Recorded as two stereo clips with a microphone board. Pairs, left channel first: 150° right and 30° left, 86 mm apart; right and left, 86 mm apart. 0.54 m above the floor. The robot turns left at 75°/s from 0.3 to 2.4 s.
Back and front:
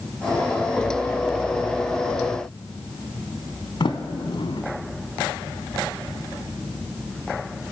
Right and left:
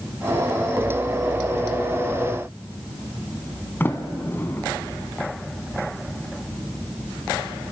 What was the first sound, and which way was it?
A sliding door, 155° right.